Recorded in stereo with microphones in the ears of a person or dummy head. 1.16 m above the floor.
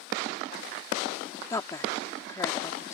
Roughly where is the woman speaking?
Centre.